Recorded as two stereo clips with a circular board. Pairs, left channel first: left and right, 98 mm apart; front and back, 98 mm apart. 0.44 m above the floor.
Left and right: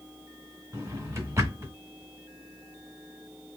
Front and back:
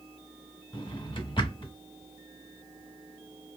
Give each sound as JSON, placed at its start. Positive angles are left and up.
{"t": 0.7, "sound": "a drawer", "azimuth_deg": -30, "distance_m": 0.9}